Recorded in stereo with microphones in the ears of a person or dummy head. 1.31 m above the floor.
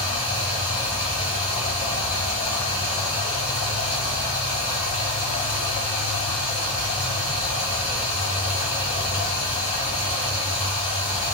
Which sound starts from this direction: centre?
Running water, at 0.0 s.